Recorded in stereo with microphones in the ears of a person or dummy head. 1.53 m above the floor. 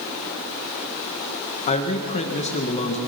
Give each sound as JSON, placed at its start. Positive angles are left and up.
{"t": 1.7, "sound": "a man speaking", "side_deg": 30, "distance_m": 1.6}